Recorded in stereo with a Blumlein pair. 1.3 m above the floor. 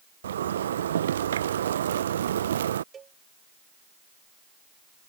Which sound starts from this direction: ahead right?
A zipper, at 0.2 s.